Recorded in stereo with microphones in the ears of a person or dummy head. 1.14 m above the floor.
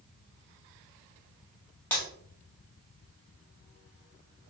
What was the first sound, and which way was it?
Breaking glass, 10° left (ahead or behind).